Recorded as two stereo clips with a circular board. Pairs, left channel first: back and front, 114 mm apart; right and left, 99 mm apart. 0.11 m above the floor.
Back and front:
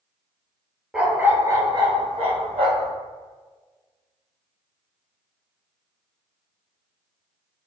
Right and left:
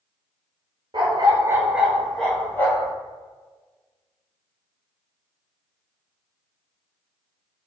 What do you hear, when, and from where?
0.9 s a dog barking: 85° left, 0.7 m; by 2.9 s 30° right, 1.1 m